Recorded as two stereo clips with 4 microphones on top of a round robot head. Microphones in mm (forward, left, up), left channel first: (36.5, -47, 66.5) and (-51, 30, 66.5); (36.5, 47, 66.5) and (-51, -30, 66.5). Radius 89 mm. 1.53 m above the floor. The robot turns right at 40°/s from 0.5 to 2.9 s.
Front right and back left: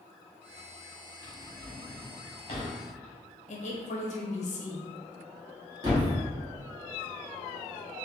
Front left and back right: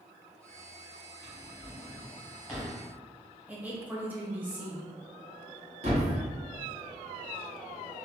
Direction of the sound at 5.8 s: 165° right.